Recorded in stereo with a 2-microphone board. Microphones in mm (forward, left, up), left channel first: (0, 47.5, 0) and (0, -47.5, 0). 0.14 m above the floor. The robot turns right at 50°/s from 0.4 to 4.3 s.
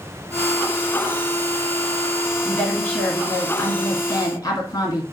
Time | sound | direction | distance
2.5 | a woman speaking | 5° left | 2.0 m